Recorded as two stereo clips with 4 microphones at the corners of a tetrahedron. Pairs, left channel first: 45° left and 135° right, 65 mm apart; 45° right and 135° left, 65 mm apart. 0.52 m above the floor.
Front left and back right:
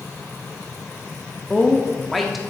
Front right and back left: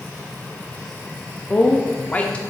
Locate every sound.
1.5 s a woman speaking: 50° right, 0.7 m